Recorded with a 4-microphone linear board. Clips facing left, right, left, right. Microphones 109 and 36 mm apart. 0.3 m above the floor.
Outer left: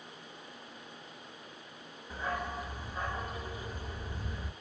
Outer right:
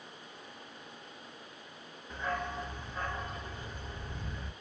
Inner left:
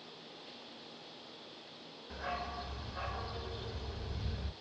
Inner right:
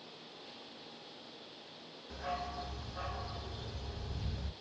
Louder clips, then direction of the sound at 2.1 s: Even, even; 10° left (ahead or behind).